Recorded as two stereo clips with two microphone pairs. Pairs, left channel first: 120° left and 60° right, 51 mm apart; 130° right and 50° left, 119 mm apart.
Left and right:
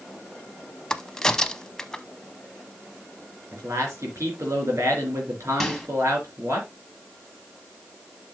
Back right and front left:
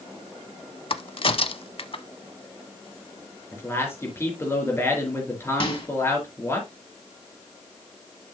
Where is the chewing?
No chewing in this recording.